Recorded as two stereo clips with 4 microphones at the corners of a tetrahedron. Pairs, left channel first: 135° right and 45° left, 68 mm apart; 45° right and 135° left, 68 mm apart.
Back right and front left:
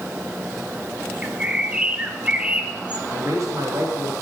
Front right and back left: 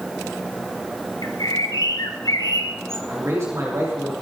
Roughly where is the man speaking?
Left.